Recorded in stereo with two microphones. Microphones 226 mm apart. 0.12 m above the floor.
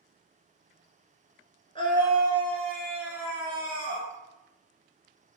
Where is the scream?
20° left (ahead or behind), 1.4 m; by 4.1 s 30° right (ahead or behind), 1.4 m.